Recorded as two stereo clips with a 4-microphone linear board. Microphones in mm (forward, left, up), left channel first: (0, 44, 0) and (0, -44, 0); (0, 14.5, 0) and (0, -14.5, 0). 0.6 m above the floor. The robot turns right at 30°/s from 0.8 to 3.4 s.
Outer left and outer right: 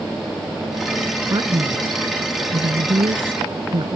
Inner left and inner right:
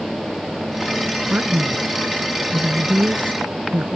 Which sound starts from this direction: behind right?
A man speaking, at 1.3 s.